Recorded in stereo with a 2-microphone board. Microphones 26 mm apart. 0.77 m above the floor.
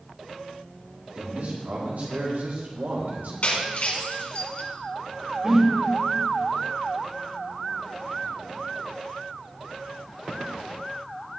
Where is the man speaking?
80° right, 4 m; by 3.3 s 65° right (ahead or behind), 2.5 m.